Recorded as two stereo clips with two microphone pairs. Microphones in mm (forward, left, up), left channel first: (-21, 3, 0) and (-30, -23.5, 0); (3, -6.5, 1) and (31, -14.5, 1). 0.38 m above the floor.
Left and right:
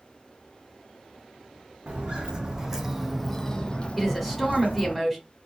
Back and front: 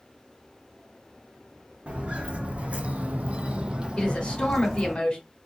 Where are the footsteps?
65° right, 1.0 m; by 5.0 s 65° left, 1.0 m.